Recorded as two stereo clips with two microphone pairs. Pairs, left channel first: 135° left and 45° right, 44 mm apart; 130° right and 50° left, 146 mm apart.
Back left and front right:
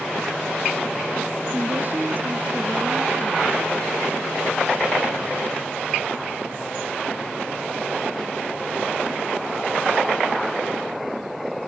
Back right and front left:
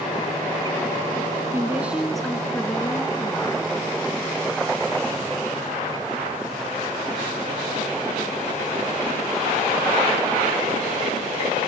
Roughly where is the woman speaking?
Ahead.